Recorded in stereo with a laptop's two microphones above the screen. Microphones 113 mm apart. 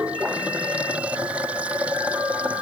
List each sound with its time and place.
0.0 s running water: 10° right (ahead or behind)